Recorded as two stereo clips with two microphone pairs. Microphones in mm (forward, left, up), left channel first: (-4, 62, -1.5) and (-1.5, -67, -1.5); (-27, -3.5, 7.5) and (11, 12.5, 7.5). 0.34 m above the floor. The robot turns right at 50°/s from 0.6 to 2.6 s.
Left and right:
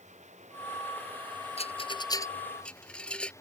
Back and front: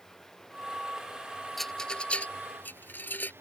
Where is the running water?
75° right; by 3.4 s 25° left.